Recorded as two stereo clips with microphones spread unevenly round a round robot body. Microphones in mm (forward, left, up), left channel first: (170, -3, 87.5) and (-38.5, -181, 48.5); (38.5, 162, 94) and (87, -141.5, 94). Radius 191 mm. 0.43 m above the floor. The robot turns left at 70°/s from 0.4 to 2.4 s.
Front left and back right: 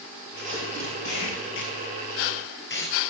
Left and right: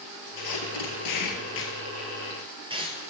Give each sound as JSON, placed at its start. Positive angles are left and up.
{"t": 0.4, "sound": "tape being pulled", "azimuth_deg": 135, "distance_m": 1.8}